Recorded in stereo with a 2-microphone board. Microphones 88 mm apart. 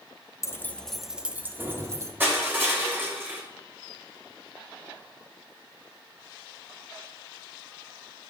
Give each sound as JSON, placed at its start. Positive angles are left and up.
{"t": 0.4, "sound": "keys jangling", "side_deg": 35, "distance_m": 0.6}
{"t": 2.2, "sound": "crushing", "side_deg": -20, "distance_m": 3.0}